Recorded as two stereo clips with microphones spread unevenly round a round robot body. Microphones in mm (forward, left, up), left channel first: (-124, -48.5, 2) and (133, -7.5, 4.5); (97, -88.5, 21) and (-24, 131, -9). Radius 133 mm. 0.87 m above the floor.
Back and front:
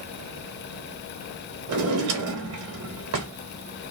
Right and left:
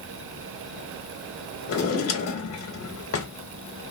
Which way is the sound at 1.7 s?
25° right.